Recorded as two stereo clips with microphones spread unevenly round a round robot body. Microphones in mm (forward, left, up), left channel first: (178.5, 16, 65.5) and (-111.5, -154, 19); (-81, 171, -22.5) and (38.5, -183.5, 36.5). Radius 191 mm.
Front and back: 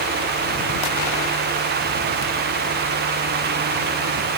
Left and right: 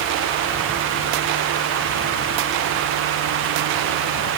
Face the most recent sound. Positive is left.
No sound to turn to.